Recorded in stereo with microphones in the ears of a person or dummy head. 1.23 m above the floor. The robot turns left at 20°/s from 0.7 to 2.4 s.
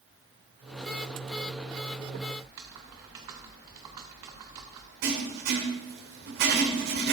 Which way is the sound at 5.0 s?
65° right (ahead or behind).